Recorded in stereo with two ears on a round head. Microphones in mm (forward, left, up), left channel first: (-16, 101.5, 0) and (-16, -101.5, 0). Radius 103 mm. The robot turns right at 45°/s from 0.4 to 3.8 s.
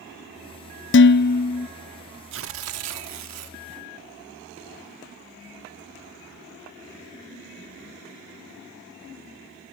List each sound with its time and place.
0.9 s dishes clattering: 120° left, 0.6 m; by 1.7 s 155° left, 0.6 m
2.3 s tearing paper: 120° right, 1.4 m; by 3.6 s 65° right, 1.4 m